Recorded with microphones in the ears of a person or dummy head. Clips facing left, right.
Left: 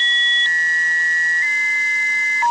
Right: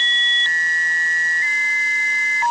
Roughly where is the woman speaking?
No woman speaking in this recording.